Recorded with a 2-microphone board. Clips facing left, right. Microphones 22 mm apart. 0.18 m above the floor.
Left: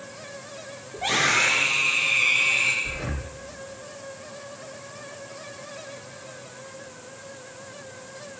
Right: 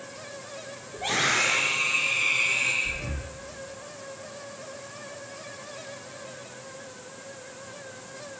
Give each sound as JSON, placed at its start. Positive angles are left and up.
{"t": 0.9, "sound": "a scream", "side_deg": 20, "distance_m": 5.0}
{"t": 2.8, "sound": "breathing", "side_deg": 70, "distance_m": 1.9}